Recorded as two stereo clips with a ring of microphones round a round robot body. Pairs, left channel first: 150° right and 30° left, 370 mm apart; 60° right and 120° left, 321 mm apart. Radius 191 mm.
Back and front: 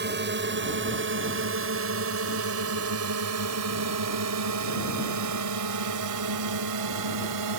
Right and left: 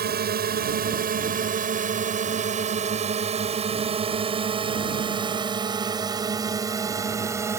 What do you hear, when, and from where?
0.0 s a drone: 80° left; by 7.6 s 40° left